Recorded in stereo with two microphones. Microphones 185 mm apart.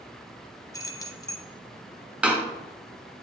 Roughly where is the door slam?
Centre.